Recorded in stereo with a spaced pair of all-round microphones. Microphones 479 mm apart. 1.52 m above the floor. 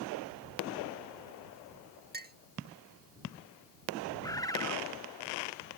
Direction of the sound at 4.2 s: 10° left (ahead or behind).